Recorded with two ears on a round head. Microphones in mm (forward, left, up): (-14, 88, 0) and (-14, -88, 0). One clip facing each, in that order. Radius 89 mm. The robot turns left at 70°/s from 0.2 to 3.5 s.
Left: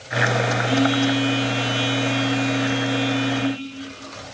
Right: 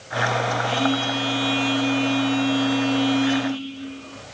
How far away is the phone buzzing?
About 1.7 m.